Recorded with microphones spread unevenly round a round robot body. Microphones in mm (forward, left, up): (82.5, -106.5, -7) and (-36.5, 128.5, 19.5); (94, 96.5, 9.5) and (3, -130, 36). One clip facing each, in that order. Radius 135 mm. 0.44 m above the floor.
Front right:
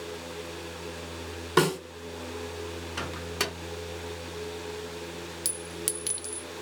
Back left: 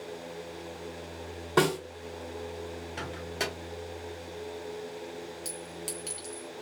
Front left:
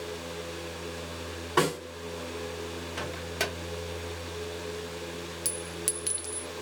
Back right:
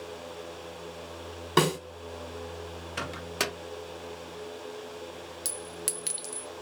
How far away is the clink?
About 0.5 m.